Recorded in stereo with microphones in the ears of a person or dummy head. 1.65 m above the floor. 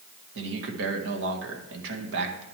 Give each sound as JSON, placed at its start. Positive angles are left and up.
{"t": 0.3, "sound": "a man speaking", "side_deg": -65, "distance_m": 1.5}